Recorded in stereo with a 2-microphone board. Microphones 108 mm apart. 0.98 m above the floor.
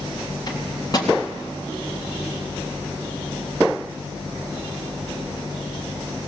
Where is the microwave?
40° left (ahead or behind), 3.5 m.